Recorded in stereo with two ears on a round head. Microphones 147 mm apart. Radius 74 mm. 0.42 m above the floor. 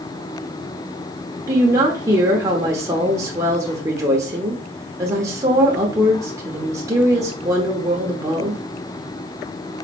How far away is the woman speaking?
About 0.9 m.